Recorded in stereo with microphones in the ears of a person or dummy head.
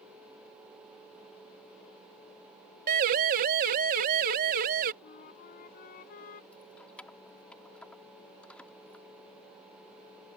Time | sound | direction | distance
2.9 | a siren | 45° right (ahead or behind) | ?
5.0 | a flute | 50° left (ahead or behind) | ?
6.5 | keys jangling | 5° left (ahead or behind) | ?